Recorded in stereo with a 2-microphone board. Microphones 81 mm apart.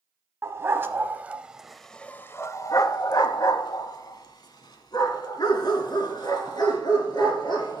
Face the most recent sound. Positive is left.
turn(degrees=60)  # may be behind; listen again after turning